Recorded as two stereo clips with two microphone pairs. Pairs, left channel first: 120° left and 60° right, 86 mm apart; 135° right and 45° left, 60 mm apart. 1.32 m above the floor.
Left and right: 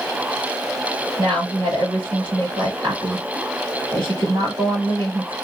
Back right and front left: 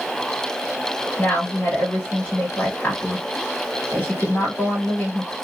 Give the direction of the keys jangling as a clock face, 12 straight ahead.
I don't hear keys jangling.